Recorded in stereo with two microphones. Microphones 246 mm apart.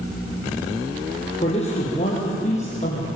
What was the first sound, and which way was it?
A man speaking, 25° left (ahead or behind).